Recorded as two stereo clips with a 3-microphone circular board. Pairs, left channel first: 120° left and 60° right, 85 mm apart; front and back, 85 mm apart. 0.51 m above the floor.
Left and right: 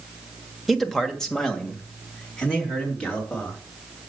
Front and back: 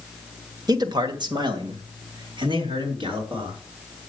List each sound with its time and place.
0.7 s a man speaking: 150° right, 1.3 m; by 3.6 s 160° right, 5.5 m